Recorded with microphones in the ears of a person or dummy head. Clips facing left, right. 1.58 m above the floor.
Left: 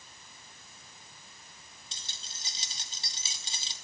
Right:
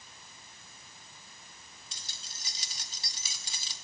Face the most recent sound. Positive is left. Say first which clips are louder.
# even
turn(degrees=20)  # may be behind; listen again after turning